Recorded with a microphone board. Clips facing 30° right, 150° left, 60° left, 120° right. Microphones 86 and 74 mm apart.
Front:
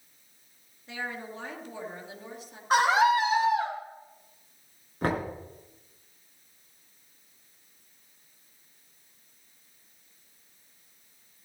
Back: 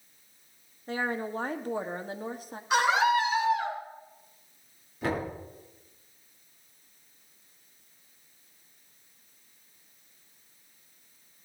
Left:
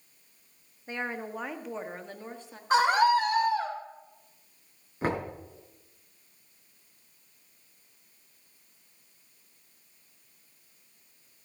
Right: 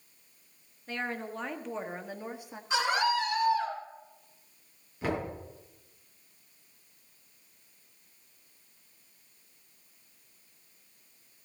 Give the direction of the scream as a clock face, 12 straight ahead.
11 o'clock.